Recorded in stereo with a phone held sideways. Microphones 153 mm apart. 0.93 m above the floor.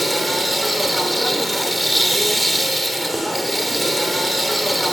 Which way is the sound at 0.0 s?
Centre (ahead or behind).